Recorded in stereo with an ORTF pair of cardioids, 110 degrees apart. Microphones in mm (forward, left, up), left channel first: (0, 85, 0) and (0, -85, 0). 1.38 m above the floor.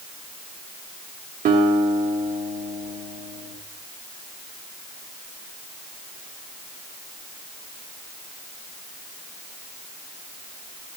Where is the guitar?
55° right, 3 m.